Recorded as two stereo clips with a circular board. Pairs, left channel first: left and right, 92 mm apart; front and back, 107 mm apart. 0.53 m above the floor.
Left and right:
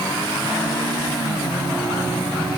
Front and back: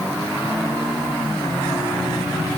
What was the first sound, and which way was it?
Only background noise.